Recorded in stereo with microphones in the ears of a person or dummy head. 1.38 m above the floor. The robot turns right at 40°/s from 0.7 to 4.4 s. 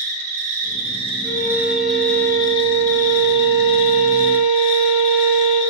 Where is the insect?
45° right, 3 m; by 5.7 s 100° left, 3 m.